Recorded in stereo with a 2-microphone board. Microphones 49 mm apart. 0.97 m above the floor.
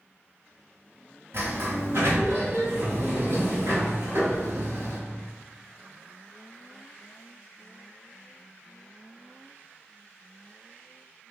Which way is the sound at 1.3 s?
65° right (ahead or behind).